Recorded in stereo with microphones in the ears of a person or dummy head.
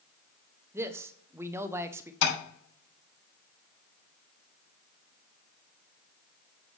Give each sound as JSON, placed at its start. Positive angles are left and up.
{"t": 0.7, "sound": "a man speaking", "side_deg": -20, "distance_m": 0.5}
{"t": 2.2, "sound": "tapping", "side_deg": 75, "distance_m": 4.0}